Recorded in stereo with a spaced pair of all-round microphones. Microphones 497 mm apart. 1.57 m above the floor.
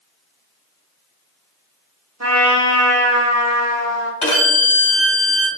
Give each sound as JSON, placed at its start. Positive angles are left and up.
{"t": 2.2, "sound": "a trumpet", "side_deg": -30, "distance_m": 0.8}
{"t": 4.2, "sound": "a violin", "side_deg": 70, "distance_m": 1.1}